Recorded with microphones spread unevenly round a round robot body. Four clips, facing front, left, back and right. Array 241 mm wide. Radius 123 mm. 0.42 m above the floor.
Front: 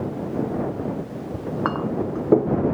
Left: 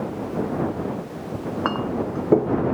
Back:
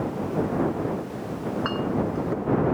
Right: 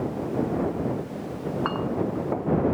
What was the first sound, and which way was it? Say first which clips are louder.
A clink: left 3 dB, front 2 dB; 35° left.